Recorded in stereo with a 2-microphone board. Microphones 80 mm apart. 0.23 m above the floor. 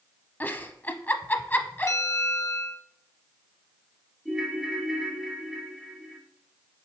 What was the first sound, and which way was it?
A giggle, 25° left (ahead or behind).